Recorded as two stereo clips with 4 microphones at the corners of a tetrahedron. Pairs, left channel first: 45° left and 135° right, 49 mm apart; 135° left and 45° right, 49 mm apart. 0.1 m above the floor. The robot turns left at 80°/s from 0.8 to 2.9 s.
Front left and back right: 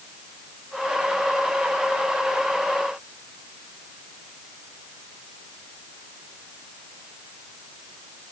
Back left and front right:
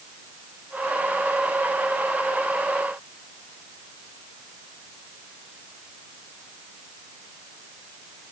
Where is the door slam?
No door slam in this recording.